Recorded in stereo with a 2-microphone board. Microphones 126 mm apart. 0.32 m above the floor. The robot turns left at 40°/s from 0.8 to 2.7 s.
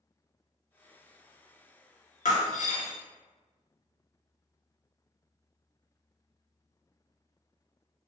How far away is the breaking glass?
About 1.0 m.